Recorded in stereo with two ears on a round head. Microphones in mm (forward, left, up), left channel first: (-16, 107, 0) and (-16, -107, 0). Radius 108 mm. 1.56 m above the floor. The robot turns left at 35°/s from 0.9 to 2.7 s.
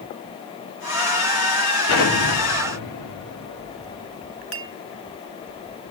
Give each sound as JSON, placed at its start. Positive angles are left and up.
{"t": 1.9, "sound": "an explosion", "side_deg": 55, "distance_m": 4.0}
{"t": 4.5, "sound": "a clink", "side_deg": -50, "distance_m": 1.2}